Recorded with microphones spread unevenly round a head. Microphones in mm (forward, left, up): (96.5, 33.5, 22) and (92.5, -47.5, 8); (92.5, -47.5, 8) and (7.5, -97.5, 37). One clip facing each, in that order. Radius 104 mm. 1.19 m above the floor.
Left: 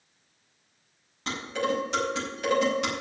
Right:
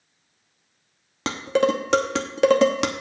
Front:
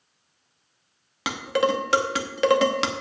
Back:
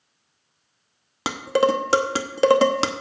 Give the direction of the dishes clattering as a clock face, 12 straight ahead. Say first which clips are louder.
Right 8 dB, back 3 dB; 4 o'clock.